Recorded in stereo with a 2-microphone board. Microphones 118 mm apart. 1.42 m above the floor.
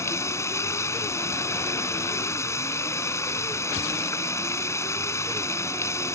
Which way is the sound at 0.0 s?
25° left (ahead or behind).